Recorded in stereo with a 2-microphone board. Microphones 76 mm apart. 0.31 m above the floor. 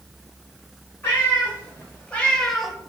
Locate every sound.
1.0 s a cat meowing: 25° left (ahead or behind), 2.0 m; by 2.8 s 10° right (ahead or behind), 0.6 m